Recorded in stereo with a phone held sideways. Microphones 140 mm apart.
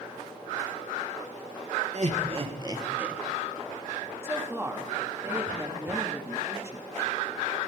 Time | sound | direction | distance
1.9 | laughter | 55° right (ahead or behind) | 2.0 m
4.2 | a woman speaking | 20° right (ahead or behind) | 2.5 m